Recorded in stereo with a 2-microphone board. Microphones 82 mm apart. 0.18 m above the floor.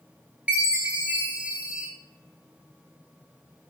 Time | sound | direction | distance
0.5 | a chime | 20° right (ahead or behind) | 0.6 m